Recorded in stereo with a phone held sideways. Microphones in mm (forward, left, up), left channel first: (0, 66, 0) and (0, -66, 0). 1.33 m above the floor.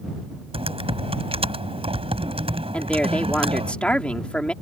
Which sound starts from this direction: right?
Typing on a keyboard, at 0.5 s.